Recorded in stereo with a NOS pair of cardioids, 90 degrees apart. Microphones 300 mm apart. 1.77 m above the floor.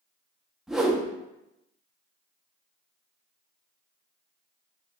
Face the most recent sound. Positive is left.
turn(degrees=0)